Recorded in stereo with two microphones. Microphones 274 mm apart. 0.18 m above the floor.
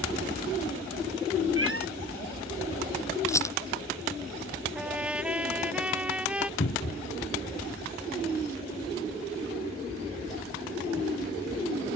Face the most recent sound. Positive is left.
turn(degrees=55)  # may be behind; listen again after turning